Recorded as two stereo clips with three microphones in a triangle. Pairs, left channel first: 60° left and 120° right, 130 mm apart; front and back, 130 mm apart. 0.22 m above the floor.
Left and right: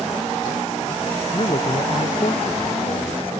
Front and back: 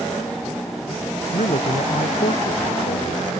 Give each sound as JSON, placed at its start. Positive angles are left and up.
{"t": 1.3, "sound": "a man speaking", "azimuth_deg": 15}